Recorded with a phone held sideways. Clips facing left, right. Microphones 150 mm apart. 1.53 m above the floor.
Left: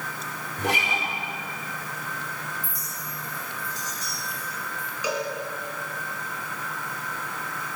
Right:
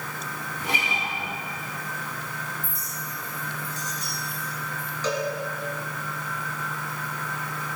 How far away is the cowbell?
About 2.5 m.